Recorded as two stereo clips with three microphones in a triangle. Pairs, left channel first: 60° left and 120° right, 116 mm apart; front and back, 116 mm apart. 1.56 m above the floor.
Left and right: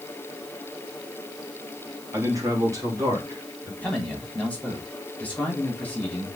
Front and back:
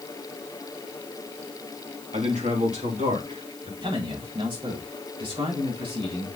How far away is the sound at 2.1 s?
About 3 m.